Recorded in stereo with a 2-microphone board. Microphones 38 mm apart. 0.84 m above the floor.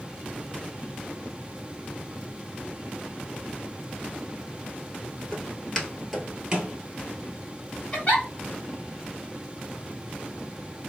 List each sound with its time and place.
5.3 s footsteps: 25° left (ahead or behind), 1.3 m; by 6.7 s 35° right (ahead or behind), 1.0 m
7.9 s a giggle: 35° left (ahead or behind), 1.4 m